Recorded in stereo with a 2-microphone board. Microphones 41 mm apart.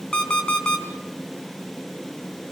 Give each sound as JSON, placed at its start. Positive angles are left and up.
{"t": 0.1, "sound": "an alarm clock", "side_deg": 20, "distance_m": 4.5}